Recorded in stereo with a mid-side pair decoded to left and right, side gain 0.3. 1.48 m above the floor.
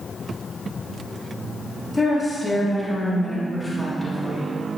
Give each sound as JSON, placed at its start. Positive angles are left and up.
{"t": 1.9, "sound": "a woman speaking", "azimuth_deg": 15, "distance_m": 3.0}